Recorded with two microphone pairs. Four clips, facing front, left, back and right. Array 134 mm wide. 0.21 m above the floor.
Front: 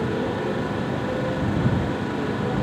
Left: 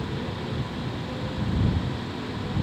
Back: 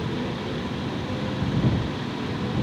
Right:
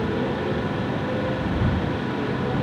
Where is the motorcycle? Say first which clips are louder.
Right 8 dB, front 5 dB; 40° right.